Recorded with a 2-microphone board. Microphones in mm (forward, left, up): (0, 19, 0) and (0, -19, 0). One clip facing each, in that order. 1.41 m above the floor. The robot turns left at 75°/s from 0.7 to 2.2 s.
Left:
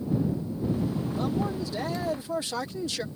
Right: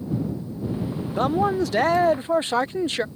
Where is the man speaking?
60° right; by 3.0 s 140° right.